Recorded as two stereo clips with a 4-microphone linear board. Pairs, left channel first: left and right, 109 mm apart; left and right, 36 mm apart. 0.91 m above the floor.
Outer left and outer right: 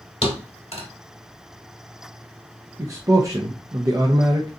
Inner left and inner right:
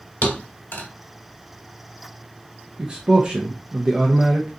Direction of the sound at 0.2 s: 60° left (ahead or behind).